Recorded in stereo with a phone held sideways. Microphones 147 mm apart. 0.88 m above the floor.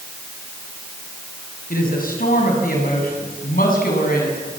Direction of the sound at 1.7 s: 75° left (ahead or behind).